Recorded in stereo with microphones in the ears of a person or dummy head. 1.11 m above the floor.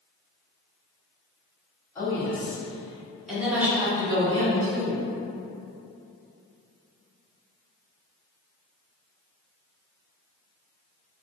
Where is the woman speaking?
15° left (ahead or behind), 1.7 m; by 5.1 s 65° right (ahead or behind), 0.7 m.